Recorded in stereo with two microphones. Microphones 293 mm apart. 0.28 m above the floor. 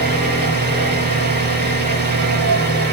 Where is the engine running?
35° right (ahead or behind), 0.9 m.